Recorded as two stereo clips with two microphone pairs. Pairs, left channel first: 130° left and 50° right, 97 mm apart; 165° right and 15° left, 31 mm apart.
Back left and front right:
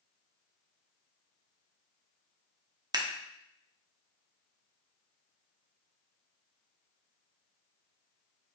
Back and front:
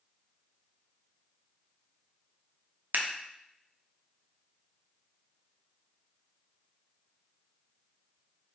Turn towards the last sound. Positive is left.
turn(degrees=-5)